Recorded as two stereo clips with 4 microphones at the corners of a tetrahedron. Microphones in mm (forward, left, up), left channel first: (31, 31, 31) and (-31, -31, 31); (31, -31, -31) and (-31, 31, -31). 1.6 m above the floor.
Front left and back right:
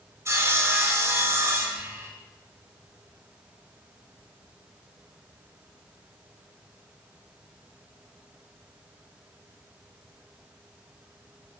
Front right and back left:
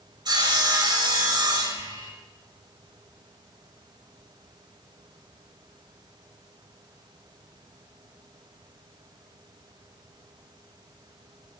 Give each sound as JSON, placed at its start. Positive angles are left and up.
{"t": 0.2, "sound": "sawing", "azimuth_deg": 170, "distance_m": 3.0}